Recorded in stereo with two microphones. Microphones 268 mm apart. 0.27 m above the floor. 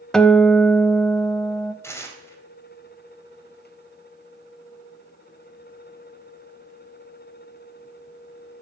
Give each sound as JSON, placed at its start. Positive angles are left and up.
{"t": 0.1, "sound": "a guitar", "side_deg": 5, "distance_m": 0.7}
{"t": 1.8, "sound": "tearing paper", "side_deg": 10, "distance_m": 1.6}